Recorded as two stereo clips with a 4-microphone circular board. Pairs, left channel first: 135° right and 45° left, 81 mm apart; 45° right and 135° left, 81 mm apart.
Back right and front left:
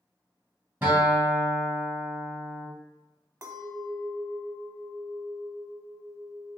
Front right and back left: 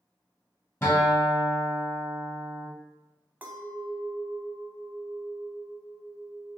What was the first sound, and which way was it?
A guitar, 10° right.